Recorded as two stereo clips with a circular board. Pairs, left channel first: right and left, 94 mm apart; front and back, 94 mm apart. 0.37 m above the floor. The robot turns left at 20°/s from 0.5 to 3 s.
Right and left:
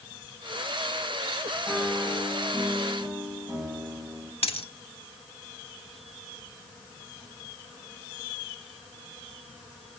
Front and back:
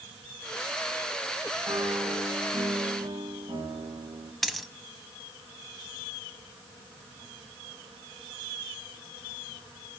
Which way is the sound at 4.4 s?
90° right.